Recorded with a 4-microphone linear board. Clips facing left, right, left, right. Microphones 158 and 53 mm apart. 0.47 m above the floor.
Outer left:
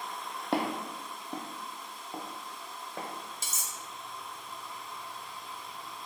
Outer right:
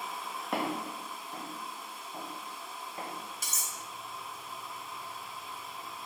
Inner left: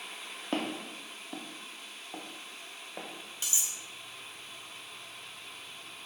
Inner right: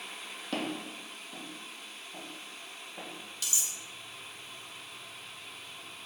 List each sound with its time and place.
0.5 s footsteps: 30° left (ahead or behind), 0.9 m; by 3.1 s 70° left (ahead or behind), 1.5 m
3.4 s cutlery clinking: 25° left (ahead or behind), 0.7 m